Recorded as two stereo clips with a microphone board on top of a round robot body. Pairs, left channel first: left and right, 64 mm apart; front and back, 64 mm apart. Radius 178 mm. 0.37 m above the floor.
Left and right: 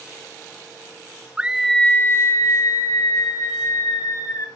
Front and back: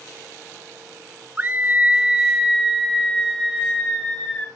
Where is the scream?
145° right, 0.9 m; by 4.5 s 80° left, 3 m.